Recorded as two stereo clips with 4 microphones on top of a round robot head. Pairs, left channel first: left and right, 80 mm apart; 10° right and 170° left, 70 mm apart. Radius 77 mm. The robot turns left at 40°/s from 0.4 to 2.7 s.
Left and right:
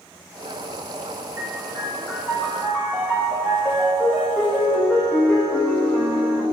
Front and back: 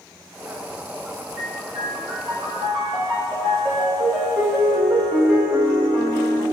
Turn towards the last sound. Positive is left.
turn(degrees=160)